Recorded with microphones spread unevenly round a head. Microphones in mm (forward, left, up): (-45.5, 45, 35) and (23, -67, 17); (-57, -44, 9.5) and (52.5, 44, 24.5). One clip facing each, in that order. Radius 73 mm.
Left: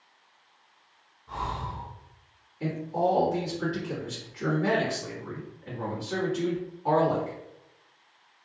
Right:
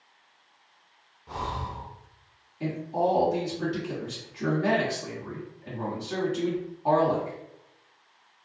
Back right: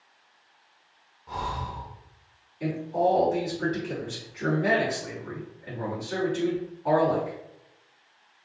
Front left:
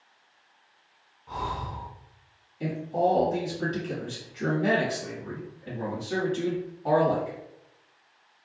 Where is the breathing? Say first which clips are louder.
Even, back right 1 dB; 65° right, 0.8 m.